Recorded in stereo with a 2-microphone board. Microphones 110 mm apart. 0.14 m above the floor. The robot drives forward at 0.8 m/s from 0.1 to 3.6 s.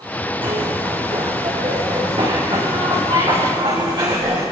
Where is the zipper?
55° right (ahead or behind), 7 m; by 4.4 s 40° right (ahead or behind), 9 m.